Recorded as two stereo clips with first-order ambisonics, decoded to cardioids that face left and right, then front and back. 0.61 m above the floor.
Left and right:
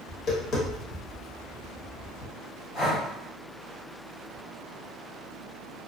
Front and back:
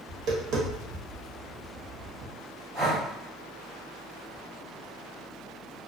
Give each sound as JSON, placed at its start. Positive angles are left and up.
{"t": 0.1, "sound": "tapping", "azimuth_deg": 145, "distance_m": 0.9}
{"t": 2.7, "sound": "breathing", "azimuth_deg": 115, "distance_m": 1.0}